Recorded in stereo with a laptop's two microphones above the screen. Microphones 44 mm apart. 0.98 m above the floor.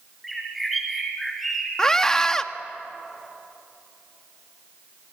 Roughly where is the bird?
Centre.